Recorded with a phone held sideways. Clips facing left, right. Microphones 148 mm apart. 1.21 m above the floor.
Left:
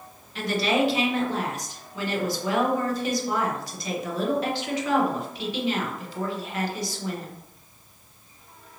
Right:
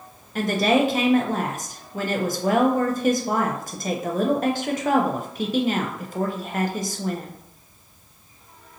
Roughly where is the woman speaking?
Right.